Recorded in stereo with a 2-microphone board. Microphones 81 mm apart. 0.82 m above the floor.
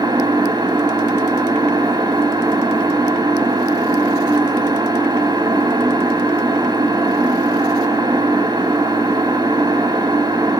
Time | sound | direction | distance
0.0 | an engine running | 60° right (ahead or behind) | 0.8 m